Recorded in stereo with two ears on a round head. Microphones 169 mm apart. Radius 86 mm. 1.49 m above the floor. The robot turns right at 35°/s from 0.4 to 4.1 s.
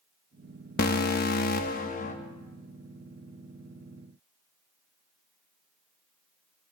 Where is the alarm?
75° left, 1.0 m; by 2.1 s 125° left, 1.0 m.